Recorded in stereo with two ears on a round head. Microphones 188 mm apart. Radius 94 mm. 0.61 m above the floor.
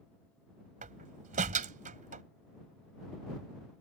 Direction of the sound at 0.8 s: 40° right (ahead or behind).